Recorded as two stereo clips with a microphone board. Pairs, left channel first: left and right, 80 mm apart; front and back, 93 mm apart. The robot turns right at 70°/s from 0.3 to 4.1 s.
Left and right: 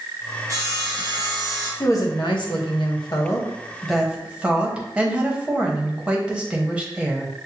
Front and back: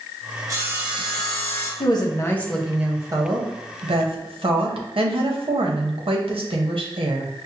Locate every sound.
0.5 s sawing: 130° right, 1.0 m; by 1.7 s 45° right, 1.0 m
1.8 s a woman speaking: 30° left, 0.8 m; by 7.3 s 170° right, 0.8 m